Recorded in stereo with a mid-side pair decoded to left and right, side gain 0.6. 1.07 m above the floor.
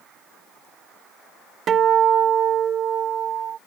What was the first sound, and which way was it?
A guitar, 50° right.